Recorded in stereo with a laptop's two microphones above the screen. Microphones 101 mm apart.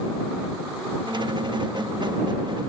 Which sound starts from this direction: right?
A squeak, at 1.1 s.